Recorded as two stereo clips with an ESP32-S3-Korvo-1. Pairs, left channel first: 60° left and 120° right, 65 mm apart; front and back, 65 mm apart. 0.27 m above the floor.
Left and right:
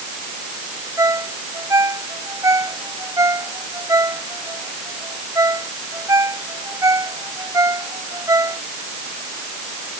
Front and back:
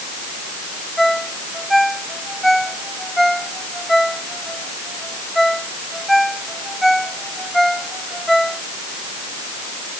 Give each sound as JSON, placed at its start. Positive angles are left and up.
{"t": 1.0, "sound": "a ringtone", "azimuth_deg": -90}